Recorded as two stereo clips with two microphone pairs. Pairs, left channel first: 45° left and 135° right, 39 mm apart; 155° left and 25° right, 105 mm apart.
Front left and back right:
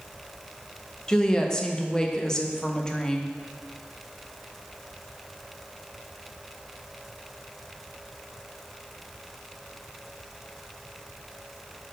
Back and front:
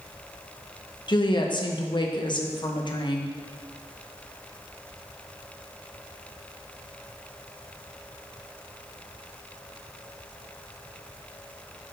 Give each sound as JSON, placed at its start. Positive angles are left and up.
{"t": 1.1, "sound": "a woman speaking", "azimuth_deg": 115, "distance_m": 0.9}